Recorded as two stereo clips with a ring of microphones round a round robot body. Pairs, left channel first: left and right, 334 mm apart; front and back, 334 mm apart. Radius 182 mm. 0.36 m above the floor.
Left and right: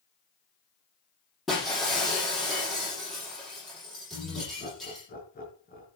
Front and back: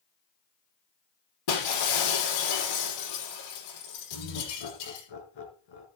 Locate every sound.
1.5 s breaking glass: straight ahead, 9 m
4.1 s laughter: 20° left, 5.5 m